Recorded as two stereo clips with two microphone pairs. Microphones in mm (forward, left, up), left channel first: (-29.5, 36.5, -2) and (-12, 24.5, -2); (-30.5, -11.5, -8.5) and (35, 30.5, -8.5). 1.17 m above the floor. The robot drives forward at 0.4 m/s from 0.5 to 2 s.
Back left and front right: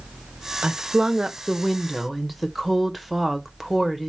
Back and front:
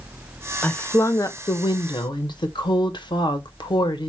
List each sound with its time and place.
0.6 s a woman speaking: 75° right, 0.6 m; by 4.1 s 125° right, 0.7 m